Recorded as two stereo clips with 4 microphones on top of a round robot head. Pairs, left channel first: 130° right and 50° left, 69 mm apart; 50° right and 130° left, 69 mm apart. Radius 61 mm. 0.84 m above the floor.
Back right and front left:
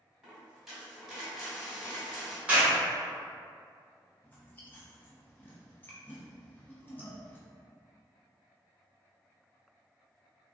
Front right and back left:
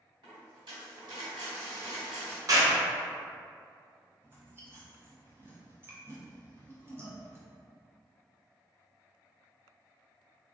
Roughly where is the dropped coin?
Behind left.